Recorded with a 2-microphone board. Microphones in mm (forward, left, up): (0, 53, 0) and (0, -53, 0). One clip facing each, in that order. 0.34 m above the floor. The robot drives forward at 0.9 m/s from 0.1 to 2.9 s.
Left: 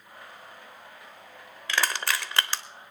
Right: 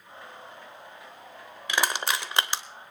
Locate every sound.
1.7 s crushing: 15° right (ahead or behind), 0.9 m; by 2.6 s 20° right (ahead or behind), 0.9 m